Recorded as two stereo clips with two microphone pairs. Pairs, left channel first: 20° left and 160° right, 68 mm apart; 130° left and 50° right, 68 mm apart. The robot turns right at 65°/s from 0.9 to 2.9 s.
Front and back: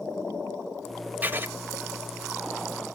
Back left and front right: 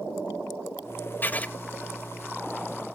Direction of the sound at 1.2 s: 155° left.